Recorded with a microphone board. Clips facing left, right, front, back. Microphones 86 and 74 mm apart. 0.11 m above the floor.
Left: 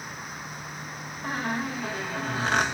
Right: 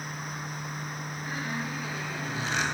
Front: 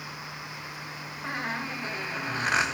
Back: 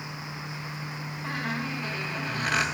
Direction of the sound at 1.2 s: 65° left.